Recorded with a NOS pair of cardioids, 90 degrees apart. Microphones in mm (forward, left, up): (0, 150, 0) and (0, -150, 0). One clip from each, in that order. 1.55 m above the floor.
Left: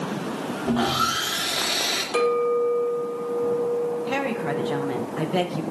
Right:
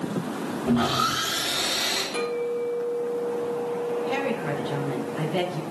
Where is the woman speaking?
30° left, 1.6 m.